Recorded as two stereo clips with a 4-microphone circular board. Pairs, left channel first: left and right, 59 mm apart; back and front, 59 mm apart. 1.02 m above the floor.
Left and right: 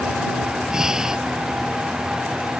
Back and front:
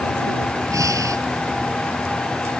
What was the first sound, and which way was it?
Breathing, 15° right.